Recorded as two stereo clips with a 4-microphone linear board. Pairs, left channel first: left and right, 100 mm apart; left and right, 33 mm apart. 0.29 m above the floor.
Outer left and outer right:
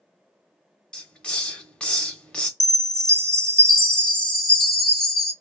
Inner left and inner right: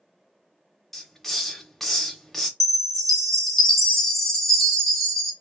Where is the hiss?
10° left (ahead or behind), 0.6 m.